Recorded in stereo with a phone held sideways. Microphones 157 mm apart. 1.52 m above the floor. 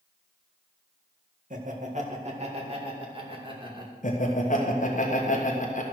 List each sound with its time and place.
1.5 s laughter: 55° right (ahead or behind), 1.7 m; by 3.9 s 30° right (ahead or behind), 2.5 m
4.0 s laughter: 55° left (ahead or behind), 1.2 m